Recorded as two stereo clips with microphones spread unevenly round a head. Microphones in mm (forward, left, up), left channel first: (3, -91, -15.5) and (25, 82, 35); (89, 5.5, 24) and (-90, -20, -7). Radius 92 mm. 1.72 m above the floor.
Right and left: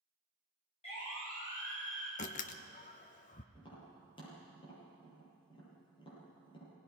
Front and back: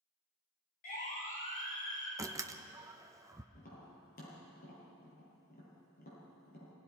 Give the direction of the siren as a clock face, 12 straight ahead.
1 o'clock.